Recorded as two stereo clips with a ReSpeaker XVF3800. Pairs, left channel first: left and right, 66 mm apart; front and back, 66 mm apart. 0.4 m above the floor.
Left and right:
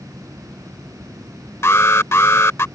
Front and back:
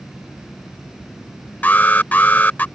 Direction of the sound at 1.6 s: 55° left.